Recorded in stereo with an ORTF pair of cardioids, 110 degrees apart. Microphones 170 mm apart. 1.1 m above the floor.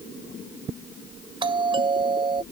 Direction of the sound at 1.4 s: 30° right.